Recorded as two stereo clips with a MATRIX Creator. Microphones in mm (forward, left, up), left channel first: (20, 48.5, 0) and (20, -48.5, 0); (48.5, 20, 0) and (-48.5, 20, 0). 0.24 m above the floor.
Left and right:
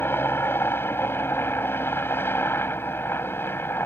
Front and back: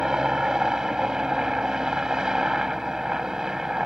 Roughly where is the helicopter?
Left.